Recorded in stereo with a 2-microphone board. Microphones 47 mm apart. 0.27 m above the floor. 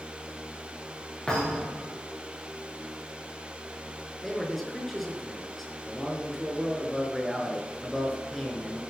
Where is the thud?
10° left (ahead or behind), 8.5 m.